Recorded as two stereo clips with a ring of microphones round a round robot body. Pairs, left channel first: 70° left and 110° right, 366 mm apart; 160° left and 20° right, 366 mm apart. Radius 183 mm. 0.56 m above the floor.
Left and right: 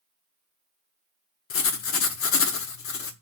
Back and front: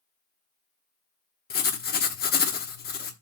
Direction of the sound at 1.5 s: 105° left.